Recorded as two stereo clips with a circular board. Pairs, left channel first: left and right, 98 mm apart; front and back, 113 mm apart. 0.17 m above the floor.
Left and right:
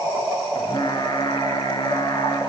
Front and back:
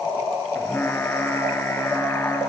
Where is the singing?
65° left, 1.9 m.